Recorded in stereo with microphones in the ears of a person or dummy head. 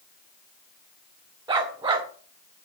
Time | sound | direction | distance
1.5 | a dog barking | 15° right (ahead or behind) | 0.9 m